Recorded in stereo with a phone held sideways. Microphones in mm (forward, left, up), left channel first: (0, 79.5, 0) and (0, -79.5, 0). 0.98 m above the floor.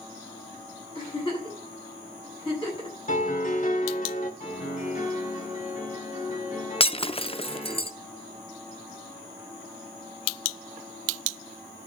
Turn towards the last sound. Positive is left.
turn(degrees=40)  # may be behind; listen again after turning